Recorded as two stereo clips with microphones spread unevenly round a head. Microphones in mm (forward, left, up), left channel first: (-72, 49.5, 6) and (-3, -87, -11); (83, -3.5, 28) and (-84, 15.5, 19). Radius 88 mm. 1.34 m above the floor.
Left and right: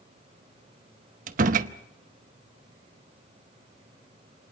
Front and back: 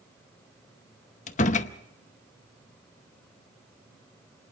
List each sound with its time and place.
1.3 s a door slam: 35° right, 0.8 m